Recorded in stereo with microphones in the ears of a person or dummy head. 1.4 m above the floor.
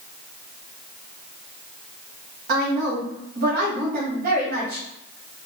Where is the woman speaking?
40° right (ahead or behind), 0.8 m.